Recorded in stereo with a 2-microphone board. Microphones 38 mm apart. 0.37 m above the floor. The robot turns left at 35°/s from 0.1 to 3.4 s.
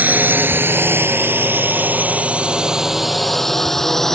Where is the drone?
50° right (ahead or behind); by 4.1 s 10° left (ahead or behind).